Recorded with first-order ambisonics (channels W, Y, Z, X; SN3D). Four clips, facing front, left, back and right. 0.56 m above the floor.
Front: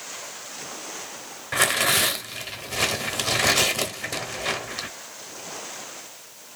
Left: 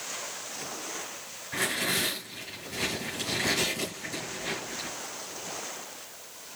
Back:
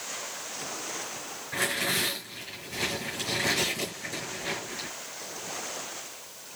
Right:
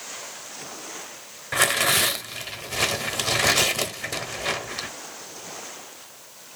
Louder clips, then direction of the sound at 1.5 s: Right 8 dB, front 7 dB; 50° right.